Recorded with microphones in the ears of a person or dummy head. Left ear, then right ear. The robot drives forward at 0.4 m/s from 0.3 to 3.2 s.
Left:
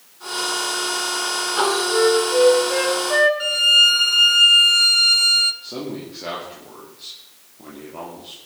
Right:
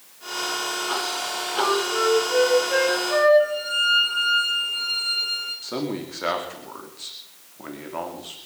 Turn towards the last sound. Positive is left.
turn(degrees=-45)  # may be behind; listen again after turning